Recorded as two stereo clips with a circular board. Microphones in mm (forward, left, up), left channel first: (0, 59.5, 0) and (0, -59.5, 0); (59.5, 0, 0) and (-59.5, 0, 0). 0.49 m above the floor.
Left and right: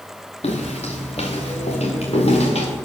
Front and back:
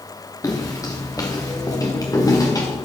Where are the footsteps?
60° left, 3.5 m.